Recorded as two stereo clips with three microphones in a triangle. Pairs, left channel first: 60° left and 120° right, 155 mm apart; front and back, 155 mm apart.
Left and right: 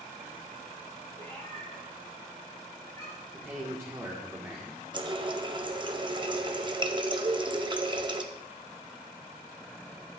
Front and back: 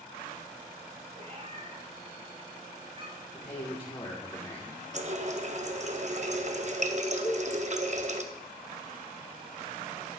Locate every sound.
1.1 s a cat meowing: 130° left, 4.5 m; by 3.2 s 125° left, 3.5 m
3.3 s a man speaking: 50° right, 1.4 m
4.9 s a running tap: 165° right, 0.7 m
7.2 s a cowbell: 55° right, 2 m